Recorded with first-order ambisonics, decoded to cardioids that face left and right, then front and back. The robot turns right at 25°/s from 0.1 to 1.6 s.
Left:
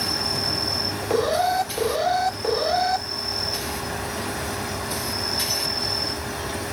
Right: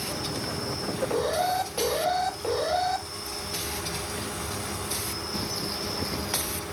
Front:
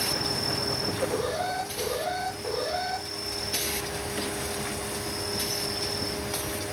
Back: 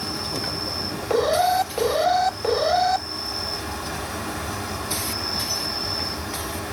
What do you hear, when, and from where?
0.0 s an insect: 85° left, 2 m; by 6.7 s 120° left, 2 m
1.1 s an alarm: 140° left, 1.5 m; by 3.0 s 150° left, 1.5 m